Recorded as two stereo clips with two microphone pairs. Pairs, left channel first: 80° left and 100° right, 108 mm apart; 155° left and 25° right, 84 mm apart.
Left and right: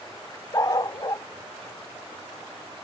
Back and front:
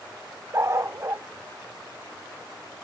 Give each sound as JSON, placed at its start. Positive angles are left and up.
{"t": 0.5, "sound": "a dog barking", "azimuth_deg": 25}